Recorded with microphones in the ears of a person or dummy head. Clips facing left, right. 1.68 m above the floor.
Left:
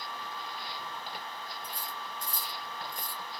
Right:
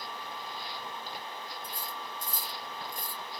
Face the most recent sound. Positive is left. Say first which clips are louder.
# right 1 dB
turn(degrees=-60)  # may be behind; listen again after turning